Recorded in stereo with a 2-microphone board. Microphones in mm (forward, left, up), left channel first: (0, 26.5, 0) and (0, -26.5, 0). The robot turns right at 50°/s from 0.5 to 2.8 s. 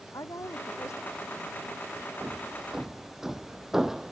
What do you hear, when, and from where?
0.1 s a woman speaking: 90° left; by 2.1 s 170° left
2.2 s hammering: 40° right (ahead or behind); by 4.1 s 10° right (ahead or behind)